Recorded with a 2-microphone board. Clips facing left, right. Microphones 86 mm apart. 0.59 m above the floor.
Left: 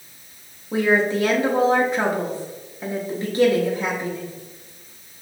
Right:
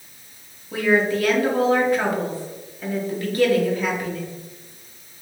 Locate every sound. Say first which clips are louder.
0.7 s a woman speaking: even; 25° left (ahead or behind), 0.8 m